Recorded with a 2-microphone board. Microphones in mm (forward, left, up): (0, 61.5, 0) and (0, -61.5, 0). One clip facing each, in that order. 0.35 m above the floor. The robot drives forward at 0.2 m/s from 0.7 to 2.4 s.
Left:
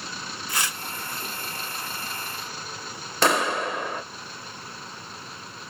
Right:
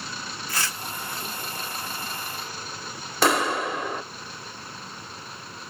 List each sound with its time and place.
0.5 s tearing paper: 20° left (ahead or behind), 1.5 m
3.2 s a clap: centre (ahead or behind), 0.7 m